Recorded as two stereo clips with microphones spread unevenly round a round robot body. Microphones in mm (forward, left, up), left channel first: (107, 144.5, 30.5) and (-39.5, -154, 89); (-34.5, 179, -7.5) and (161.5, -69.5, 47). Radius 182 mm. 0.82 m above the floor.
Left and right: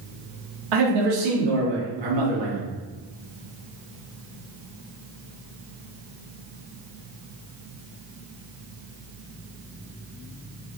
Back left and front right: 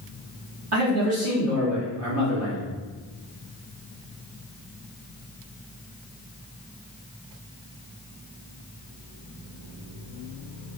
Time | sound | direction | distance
0.7 | a man speaking | 105° right | 1.3 m